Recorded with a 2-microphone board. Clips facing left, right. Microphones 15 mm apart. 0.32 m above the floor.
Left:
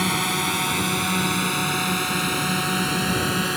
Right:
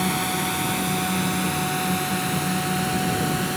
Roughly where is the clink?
I don't hear a clink.